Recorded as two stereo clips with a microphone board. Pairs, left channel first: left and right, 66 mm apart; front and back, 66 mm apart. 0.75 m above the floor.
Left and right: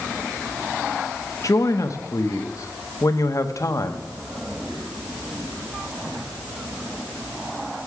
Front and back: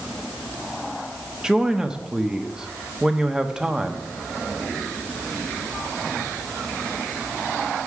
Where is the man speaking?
105° left, 0.8 m.